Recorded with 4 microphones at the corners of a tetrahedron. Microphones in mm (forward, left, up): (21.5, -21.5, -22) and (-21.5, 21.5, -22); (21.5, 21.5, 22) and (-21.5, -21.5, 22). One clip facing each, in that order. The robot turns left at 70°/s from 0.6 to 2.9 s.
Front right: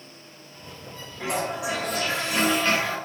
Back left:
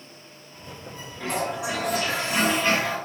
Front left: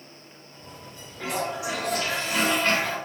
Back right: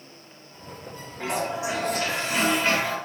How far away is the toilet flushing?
About 1.2 m.